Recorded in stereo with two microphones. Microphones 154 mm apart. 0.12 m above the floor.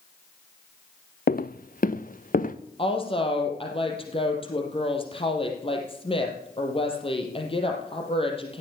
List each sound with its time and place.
1.3 s footsteps: 65° left (ahead or behind), 0.7 m; by 2.5 s 60° left (ahead or behind), 1.4 m
2.8 s a woman speaking: 35° left (ahead or behind), 3.5 m